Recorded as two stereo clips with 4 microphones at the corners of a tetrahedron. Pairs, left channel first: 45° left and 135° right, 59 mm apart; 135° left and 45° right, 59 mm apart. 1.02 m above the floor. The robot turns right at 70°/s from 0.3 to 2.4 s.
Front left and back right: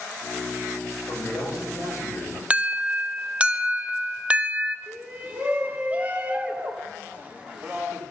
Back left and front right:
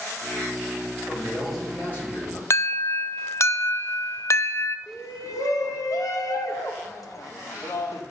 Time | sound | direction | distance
1.1 | a man speaking | 20° left | 5 m
2.5 | an alarm | 160° left | 0.5 m
4.9 | a shout | 160° left | 1.5 m